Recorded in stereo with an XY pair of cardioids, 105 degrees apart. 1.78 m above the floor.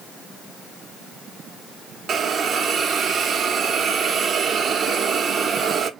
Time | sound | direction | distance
2.1 | a hiss | 45° right | 0.9 m